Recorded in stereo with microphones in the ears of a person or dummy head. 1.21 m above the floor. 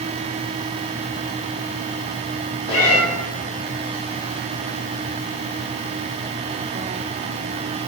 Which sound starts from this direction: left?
A cat meowing, at 2.7 s.